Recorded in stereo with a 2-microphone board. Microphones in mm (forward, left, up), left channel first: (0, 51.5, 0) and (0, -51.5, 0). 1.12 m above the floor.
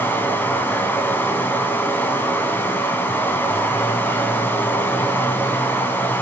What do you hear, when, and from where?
0.0 s running water: 20° left (ahead or behind), 3 m